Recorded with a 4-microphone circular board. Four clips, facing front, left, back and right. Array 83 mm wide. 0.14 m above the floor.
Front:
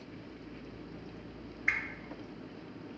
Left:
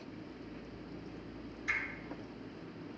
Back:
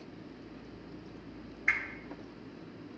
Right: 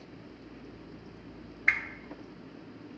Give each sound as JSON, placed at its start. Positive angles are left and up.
{"t": 1.7, "sound": "a whoosh", "azimuth_deg": -95, "distance_m": 1.1}